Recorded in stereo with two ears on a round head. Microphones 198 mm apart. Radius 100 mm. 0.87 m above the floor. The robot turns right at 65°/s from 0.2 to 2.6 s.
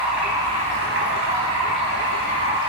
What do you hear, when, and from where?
0.0 s running water: 175° right, 4 m; by 2.7 s 20° right, 4 m